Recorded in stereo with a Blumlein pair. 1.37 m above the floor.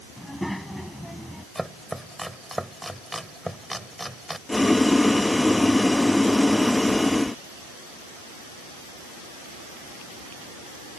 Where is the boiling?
5° left.